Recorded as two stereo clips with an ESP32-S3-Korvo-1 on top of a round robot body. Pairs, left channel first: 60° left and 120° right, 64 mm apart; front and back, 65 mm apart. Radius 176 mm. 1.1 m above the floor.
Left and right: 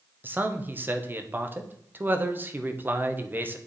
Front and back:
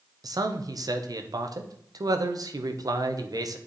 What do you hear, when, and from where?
0.2 s a man speaking: straight behind, 1.1 m